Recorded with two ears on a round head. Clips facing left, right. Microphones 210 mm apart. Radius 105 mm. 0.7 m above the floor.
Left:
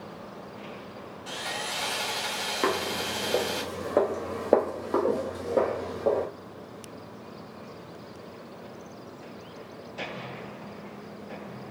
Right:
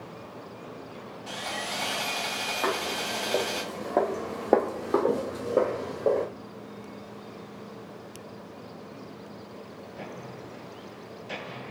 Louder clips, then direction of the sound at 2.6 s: Left 3 dB; 45° left (ahead or behind).